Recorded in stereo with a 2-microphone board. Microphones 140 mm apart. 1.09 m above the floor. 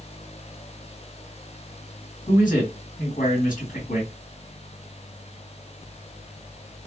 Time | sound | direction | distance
2.3 | a man speaking | 70° left (ahead or behind) | 2 m